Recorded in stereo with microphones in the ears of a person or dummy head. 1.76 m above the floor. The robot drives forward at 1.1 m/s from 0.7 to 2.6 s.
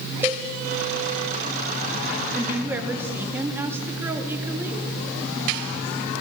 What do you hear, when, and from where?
0.2 s a cowbell: 20° right (ahead or behind), 0.8 m
2.3 s a woman speaking: 10° right (ahead or behind), 4 m